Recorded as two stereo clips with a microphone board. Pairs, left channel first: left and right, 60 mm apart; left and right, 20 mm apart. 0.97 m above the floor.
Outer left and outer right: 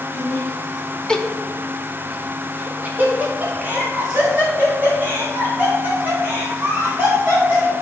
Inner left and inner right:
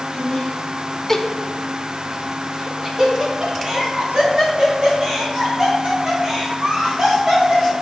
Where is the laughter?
35° left (ahead or behind), 0.8 m; by 7.7 s 30° right (ahead or behind), 5 m.